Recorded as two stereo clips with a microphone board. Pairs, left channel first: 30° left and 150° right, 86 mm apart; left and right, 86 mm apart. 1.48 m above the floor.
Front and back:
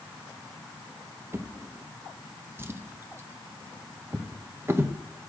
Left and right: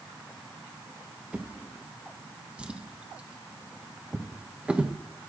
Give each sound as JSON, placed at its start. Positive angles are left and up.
{"t": 1.3, "sound": "a drawer", "azimuth_deg": -145, "distance_m": 0.7}